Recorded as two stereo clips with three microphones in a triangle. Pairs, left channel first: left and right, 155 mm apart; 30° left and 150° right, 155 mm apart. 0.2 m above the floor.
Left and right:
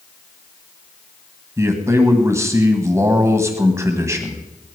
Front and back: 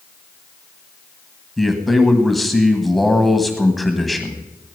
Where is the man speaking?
60° right, 1.6 m.